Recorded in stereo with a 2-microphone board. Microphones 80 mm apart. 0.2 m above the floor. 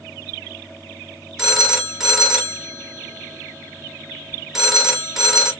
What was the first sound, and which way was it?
A phone ringing, 5° right (ahead or behind).